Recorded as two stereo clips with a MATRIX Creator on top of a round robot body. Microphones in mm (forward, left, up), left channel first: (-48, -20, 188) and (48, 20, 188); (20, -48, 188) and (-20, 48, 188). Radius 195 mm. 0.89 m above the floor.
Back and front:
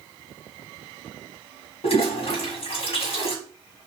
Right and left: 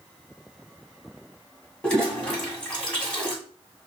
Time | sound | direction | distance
1.8 | a toilet flushing | 150° right | 1.7 m